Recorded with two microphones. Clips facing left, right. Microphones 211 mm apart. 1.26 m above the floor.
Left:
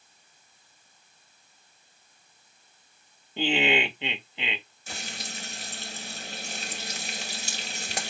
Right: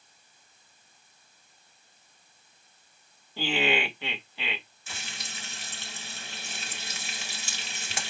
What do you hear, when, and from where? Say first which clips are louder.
3.4 s laughter: left 2 dB; 20° left (ahead or behind), 0.9 m
4.9 s frying: left 6 dB; 40° left (ahead or behind), 1.1 m